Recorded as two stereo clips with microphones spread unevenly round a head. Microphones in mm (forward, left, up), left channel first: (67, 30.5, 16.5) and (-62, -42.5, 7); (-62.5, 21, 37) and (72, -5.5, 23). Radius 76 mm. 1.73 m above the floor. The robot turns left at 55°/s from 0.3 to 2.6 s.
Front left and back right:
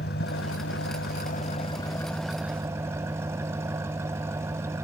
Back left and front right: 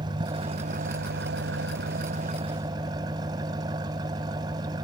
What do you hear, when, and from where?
0.0 s an engine running: 50° left; by 4.8 s 75° right